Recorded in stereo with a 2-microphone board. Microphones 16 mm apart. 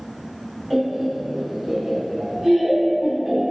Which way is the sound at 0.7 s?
15° right (ahead or behind).